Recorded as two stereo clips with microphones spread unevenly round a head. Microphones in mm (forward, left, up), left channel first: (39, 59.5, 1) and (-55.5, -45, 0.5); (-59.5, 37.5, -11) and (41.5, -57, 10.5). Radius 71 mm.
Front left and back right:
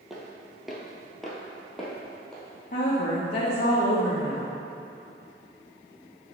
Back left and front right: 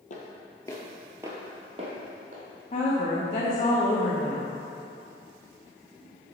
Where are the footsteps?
140° left, 1.5 m; by 2.4 s 40° right, 2.5 m.